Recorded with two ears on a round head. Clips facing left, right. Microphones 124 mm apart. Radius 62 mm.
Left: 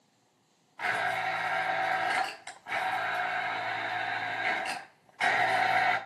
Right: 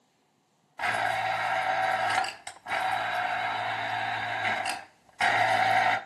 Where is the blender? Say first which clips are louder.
Right 3 dB; 60° right (ahead or behind), 3.5 m.